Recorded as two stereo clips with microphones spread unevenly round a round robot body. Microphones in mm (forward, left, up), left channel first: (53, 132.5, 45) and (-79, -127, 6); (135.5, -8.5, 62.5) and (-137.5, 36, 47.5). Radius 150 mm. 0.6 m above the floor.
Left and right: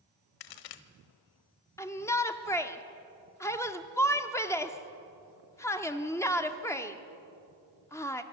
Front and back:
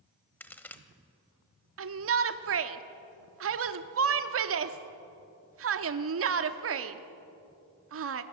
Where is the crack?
75° left, 1.1 m.